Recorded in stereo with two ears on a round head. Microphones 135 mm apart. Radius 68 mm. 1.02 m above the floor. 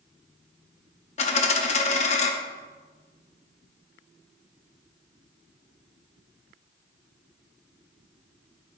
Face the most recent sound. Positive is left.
turn(degrees=45)  # may be behind; listen again after turning